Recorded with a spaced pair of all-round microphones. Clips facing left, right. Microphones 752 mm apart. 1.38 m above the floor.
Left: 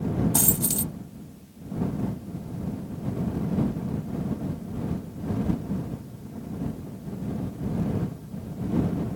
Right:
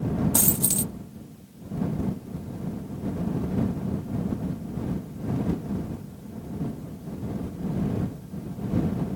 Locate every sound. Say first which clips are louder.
0.3 s a dropped coin: even; 10° right (ahead or behind)